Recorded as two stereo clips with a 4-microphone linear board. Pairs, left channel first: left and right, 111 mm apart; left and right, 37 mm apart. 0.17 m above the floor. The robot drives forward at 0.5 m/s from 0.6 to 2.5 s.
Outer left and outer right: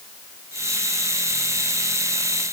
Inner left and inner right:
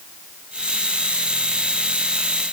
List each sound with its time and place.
Only background noise.